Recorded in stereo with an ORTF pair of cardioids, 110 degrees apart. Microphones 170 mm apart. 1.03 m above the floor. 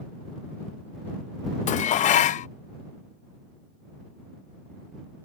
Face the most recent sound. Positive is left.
turn(degrees=45)